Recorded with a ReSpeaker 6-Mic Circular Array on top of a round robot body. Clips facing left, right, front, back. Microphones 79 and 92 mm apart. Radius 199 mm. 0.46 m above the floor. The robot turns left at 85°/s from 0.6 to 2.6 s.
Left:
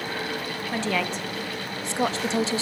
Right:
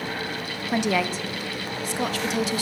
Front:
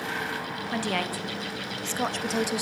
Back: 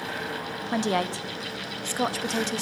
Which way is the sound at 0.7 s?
135° right.